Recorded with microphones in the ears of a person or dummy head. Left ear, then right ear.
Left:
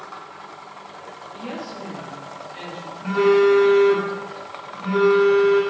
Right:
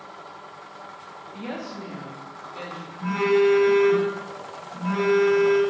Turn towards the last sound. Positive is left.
turn(degrees=-45)  # may be behind; listen again after turning